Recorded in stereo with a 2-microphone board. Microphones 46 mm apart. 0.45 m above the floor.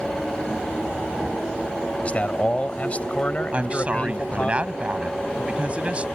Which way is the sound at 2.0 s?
30° left (ahead or behind).